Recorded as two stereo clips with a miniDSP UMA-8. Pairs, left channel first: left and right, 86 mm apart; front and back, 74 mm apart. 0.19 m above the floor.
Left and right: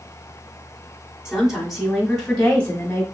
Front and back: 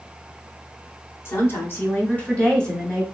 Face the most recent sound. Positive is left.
turn(degrees=90)